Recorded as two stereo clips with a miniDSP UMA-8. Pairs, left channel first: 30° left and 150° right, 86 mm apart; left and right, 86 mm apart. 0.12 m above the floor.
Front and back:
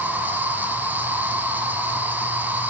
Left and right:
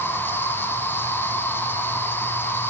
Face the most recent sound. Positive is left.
turn(degrees=145)